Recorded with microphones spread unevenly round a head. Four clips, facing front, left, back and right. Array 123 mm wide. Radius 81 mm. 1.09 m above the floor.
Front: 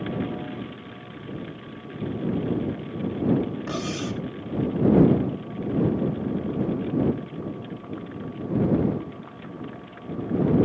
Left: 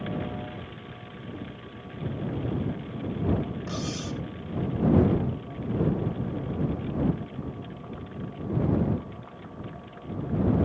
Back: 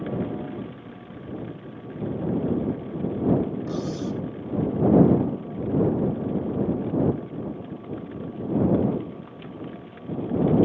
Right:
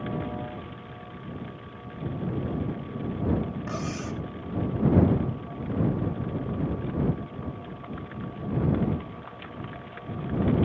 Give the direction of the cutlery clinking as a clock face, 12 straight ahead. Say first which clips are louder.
Right 1 dB, back 1 dB; 1 o'clock.